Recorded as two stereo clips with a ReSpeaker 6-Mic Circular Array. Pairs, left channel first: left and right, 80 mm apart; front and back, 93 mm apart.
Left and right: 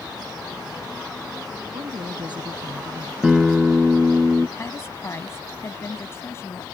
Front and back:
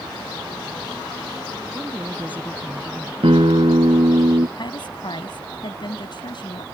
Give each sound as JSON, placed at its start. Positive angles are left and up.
{"t": 1.7, "sound": "a woman speaking", "azimuth_deg": -110}
{"t": 3.2, "sound": "a guitar", "azimuth_deg": -175}
{"t": 4.6, "sound": "a woman speaking", "azimuth_deg": 30}